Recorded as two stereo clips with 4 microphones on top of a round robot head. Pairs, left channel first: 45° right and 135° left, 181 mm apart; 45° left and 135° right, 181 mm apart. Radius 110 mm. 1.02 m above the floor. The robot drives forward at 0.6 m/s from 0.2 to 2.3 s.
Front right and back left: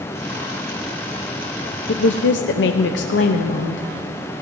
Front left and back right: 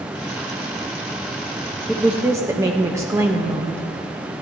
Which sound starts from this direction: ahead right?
A woman speaking, at 1.9 s.